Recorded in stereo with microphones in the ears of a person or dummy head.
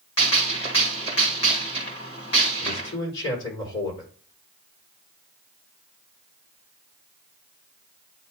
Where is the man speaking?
70° left (ahead or behind), 4.5 m.